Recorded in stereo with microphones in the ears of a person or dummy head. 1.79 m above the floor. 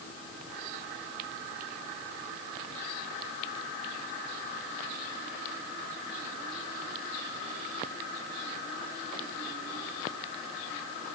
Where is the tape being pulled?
I don't hear tape being pulled.